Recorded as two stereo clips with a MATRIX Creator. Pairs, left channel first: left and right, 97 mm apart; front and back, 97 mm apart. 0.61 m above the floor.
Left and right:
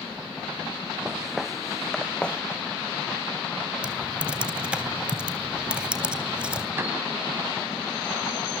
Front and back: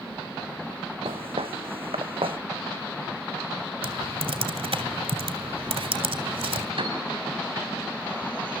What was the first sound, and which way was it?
Footsteps, 170° right.